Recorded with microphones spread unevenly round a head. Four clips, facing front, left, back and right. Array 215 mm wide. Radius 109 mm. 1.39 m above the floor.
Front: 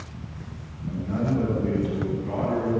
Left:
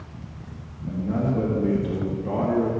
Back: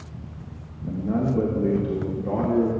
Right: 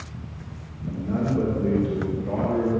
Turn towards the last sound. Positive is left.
turn(degrees=145)